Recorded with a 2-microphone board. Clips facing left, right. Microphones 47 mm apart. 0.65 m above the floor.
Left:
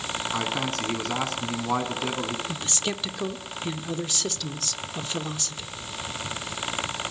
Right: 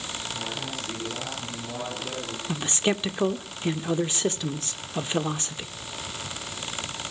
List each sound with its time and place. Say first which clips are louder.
0.3 s a man speaking: left 8 dB; 80° left, 7 m
2.5 s a man speaking: right 4 dB; 25° right (ahead or behind), 1.2 m